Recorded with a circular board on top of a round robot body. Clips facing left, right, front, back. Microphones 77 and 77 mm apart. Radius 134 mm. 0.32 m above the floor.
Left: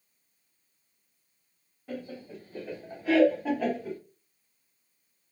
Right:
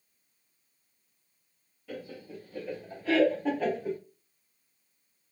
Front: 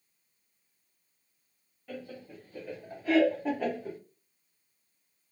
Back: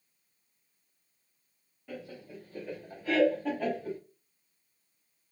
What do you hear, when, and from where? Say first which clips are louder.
1.9 s laughter: left 2 dB, front 1 dB; 105° left, 1.8 m; by 4.0 s 15° right, 1.5 m